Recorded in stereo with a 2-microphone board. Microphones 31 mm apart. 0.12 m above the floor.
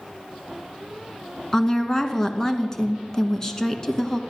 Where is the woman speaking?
15° left (ahead or behind), 1.0 m.